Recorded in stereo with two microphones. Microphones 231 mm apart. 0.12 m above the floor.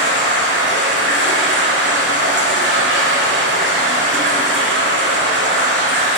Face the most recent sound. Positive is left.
turn(degrees=-55)  # may be behind; listen again after turning